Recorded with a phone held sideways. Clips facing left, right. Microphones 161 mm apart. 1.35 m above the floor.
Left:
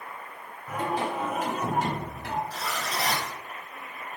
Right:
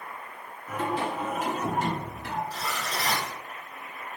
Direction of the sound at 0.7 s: 45° left (ahead or behind).